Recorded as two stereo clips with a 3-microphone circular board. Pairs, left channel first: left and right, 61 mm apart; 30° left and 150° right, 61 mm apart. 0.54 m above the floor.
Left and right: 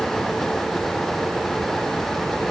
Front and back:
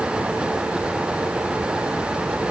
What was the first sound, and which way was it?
Only background noise.